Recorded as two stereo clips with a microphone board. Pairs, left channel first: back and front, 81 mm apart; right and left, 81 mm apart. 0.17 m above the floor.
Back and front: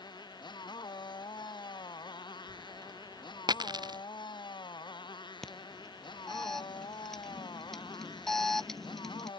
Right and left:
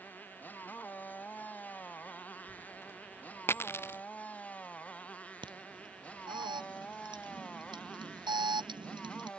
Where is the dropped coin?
30° right.